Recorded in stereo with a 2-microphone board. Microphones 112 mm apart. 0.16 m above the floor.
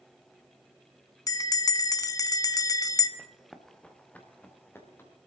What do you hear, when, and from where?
1.3 s a bell: 35° left (ahead or behind), 0.6 m
3.2 s running footsteps: 15° right (ahead or behind), 1.2 m; by 5.1 s 20° left (ahead or behind), 3.5 m